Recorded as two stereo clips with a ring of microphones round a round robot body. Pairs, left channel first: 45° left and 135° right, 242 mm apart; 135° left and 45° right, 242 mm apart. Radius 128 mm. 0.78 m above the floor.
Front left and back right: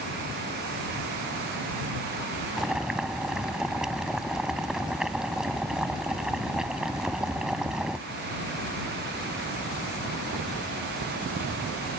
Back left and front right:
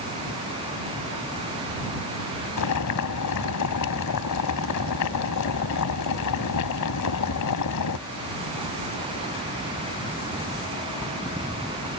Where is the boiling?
140° left.